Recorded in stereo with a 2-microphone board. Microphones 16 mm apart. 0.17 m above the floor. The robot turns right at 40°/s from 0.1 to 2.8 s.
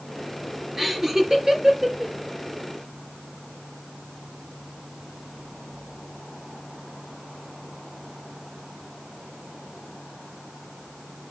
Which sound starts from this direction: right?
Laughter, at 0.8 s.